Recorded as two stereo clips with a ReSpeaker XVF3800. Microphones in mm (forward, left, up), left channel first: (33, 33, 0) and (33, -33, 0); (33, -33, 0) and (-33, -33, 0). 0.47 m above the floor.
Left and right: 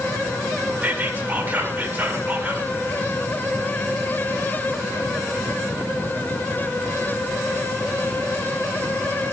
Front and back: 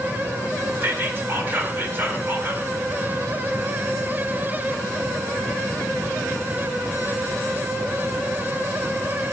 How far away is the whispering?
About 1.7 m.